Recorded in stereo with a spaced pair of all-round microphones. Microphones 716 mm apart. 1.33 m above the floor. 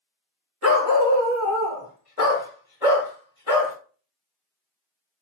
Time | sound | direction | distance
0.6 | a dog barking | 20° left (ahead or behind) | 0.9 m